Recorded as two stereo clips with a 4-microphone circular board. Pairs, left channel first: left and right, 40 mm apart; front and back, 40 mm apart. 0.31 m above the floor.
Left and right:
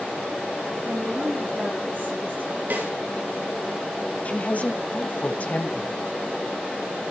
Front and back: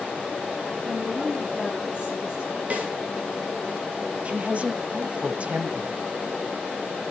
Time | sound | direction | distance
0.8 | a woman speaking | 120° right | 9.5 m
2.7 | a snare drum | 130° right | 4.5 m
4.2 | a woman speaking | 130° left | 1.6 m